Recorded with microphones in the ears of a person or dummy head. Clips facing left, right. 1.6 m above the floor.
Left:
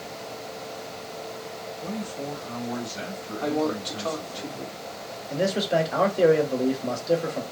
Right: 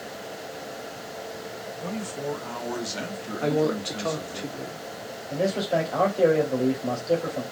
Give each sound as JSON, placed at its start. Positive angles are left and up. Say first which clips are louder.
{"t": 1.8, "sound": "a man speaking", "louder": "right 1 dB", "side_deg": -70, "distance_m": 1.0}
{"t": 3.4, "sound": "a woman speaking", "louder": "right 2 dB", "side_deg": -25, "distance_m": 0.6}
{"t": 5.3, "sound": "a man speaking", "louder": "left 1 dB", "side_deg": 15, "distance_m": 0.9}